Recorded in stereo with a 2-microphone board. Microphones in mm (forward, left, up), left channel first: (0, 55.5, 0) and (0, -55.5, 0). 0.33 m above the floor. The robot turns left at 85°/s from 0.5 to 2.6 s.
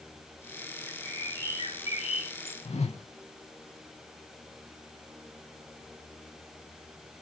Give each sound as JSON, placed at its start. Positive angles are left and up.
{"t": 0.9, "sound": "a bird", "azimuth_deg": -160, "distance_m": 2.5}
{"t": 2.6, "sound": "a whoosh", "side_deg": 75, "distance_m": 0.5}